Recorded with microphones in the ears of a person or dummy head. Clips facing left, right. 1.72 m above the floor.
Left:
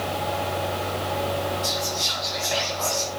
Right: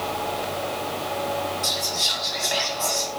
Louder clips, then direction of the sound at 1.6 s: Left 2 dB; 5° right (ahead or behind).